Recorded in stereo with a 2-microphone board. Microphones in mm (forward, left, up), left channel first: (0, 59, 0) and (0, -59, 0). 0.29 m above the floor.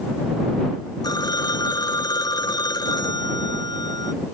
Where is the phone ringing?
35° left (ahead or behind).